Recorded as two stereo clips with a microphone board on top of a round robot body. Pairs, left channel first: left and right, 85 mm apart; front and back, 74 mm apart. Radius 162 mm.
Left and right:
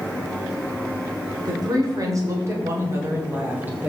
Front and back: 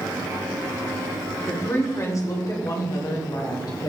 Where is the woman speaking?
55° right, 2.5 m; by 3.9 s 20° right, 3 m.